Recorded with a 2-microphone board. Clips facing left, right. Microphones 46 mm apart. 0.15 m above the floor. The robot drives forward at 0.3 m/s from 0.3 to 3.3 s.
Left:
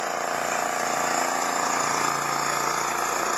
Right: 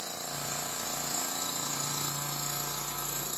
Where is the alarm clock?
No alarm clock in this recording.